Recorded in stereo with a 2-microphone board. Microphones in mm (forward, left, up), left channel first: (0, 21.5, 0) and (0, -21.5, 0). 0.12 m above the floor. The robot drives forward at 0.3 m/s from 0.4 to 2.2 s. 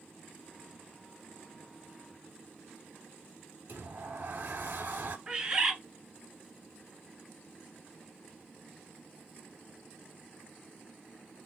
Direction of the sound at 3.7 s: 55° right (ahead or behind).